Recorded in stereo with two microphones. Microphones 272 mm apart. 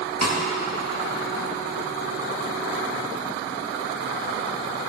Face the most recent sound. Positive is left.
turn(degrees=-70)  # may be behind; listen again after turning